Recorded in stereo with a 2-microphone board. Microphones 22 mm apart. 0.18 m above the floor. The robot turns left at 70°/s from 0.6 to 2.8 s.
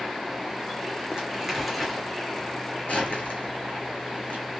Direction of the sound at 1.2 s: 40° right (ahead or behind).